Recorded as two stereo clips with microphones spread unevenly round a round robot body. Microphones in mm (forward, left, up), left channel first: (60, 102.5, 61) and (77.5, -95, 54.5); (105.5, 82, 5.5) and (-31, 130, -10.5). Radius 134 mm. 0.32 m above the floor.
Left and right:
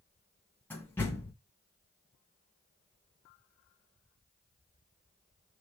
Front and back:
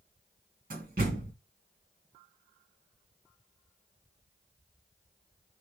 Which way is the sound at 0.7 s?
175° left.